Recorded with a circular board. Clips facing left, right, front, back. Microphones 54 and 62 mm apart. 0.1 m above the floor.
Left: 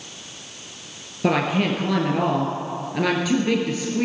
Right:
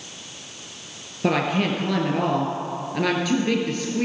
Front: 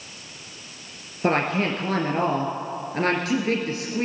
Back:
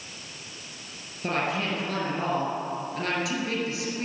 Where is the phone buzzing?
I don't hear a phone buzzing.